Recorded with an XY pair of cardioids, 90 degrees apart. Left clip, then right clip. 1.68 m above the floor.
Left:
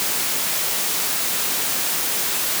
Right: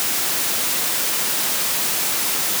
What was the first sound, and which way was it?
Only background noise.